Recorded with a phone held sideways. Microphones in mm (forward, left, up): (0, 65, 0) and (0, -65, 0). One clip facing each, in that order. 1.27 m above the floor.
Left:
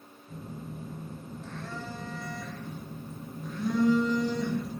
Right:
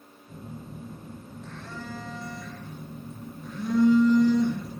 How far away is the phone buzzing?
About 0.7 m.